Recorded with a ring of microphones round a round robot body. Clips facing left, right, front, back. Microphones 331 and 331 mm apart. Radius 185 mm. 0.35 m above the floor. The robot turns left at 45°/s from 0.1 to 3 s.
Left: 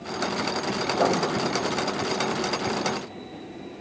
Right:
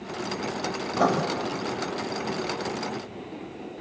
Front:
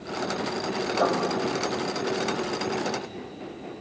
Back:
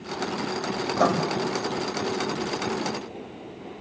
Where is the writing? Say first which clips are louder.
Even, back 2 dB; 145° right, 1.7 m; by 1.2 s 155° right, 1.7 m.